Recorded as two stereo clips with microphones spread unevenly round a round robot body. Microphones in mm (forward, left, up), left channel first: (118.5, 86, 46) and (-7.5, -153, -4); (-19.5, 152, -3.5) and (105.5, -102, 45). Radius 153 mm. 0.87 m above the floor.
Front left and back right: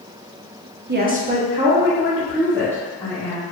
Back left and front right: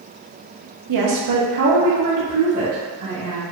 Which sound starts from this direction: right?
A woman speaking, at 0.9 s.